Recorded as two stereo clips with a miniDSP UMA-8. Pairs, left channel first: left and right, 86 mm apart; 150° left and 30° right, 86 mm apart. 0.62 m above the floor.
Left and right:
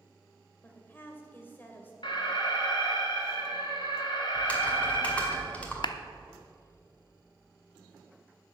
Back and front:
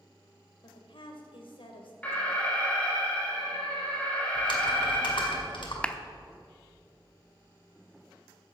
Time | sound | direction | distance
0.6 | a woman speaking | 155° left | 2 m
2.0 | an alarm | 80° left | 2.5 m
4.3 | typing on a keyboard | 165° left | 2 m
5.8 | a clap | 75° left | 0.7 m